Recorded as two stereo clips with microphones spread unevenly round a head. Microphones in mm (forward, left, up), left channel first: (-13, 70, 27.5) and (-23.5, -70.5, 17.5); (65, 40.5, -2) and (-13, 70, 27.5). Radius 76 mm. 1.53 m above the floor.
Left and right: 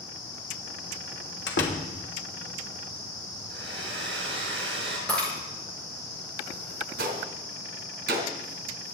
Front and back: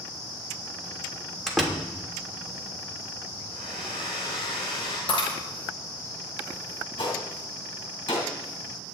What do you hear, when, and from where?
1.5 s a door slam: 75° left, 3 m
3.5 s a hair dryer: 75° right, 5.5 m
5.1 s breaking glass: straight ahead, 7 m
7.0 s a gunshot: 85° right, 2.5 m